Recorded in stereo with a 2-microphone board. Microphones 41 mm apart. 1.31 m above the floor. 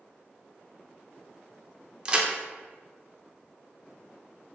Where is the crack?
20° right (ahead or behind), 0.5 m.